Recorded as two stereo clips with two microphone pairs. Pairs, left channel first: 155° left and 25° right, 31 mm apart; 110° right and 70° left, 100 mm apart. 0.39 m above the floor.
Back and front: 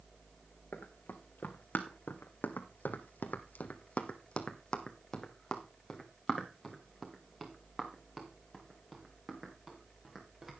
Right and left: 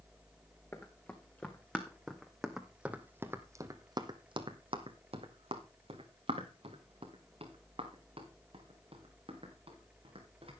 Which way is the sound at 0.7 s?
Straight behind.